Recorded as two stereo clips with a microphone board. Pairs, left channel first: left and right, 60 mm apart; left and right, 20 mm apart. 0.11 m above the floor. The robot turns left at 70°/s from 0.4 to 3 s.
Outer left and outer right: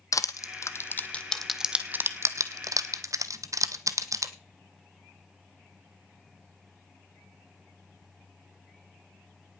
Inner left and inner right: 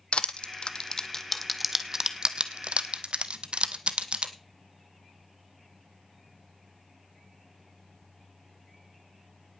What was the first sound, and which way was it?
Crushing, 70° left (ahead or behind).